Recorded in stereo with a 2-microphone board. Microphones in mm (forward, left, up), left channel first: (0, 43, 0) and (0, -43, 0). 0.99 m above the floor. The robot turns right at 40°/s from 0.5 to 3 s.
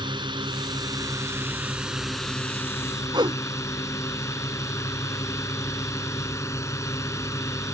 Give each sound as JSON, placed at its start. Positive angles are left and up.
{"t": 0.0, "sound": "a drone", "azimuth_deg": -65}
{"t": 3.1, "sound": "a whoosh", "side_deg": -65}